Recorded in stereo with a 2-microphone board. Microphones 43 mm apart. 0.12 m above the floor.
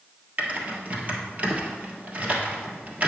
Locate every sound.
0.4 s typing on a keyboard: 40° right (ahead or behind), 1.5 m